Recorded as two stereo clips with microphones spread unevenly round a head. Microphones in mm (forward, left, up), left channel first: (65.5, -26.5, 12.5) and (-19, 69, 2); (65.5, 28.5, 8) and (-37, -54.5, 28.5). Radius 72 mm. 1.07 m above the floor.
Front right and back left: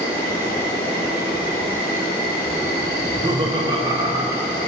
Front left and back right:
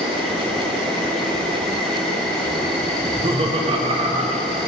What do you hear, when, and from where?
0.0 s an insect: 50° right, 1.6 m
3.0 s laughter: 170° left, 0.8 m